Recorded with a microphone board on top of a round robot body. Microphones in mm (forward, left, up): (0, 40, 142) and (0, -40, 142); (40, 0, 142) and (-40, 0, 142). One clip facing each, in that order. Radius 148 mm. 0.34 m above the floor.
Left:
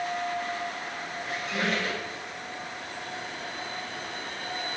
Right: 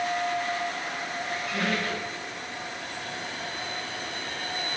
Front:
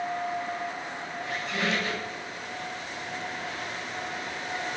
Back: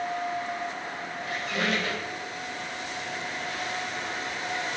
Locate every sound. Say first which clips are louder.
1.2 s a squeak: even, back 1 dB; 155° left, 1.1 m